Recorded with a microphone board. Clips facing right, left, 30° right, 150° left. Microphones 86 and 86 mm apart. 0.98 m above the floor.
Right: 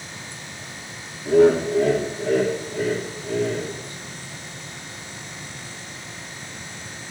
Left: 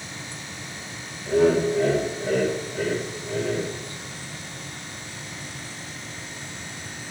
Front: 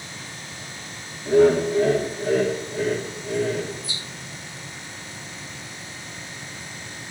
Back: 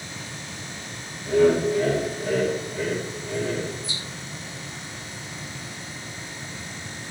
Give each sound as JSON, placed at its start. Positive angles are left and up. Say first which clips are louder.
{"t": 1.2, "sound": "laughter", "louder": "right 4 dB, front 2 dB", "azimuth_deg": -90, "distance_m": 2.0}